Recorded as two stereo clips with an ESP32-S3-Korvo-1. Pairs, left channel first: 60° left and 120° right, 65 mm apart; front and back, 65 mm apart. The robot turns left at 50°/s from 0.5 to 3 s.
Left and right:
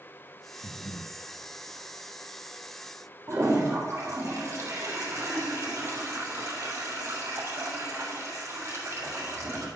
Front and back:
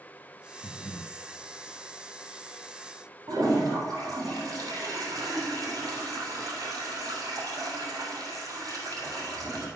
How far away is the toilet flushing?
About 3 m.